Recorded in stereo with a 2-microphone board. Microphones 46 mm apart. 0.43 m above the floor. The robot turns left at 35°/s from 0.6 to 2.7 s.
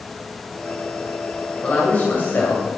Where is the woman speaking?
145° left, 2.5 m; by 2.7 s 105° left, 2.5 m.